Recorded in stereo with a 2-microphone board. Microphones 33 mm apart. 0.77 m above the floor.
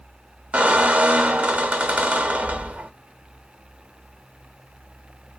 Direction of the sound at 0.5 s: 50° right (ahead or behind).